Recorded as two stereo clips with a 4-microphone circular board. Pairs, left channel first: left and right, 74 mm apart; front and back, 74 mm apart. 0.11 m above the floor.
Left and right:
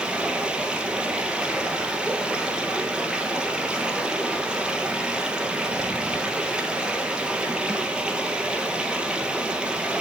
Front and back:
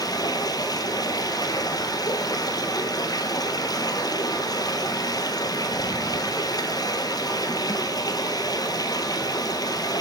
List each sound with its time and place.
0.0 s running water: 15° right, 1.3 m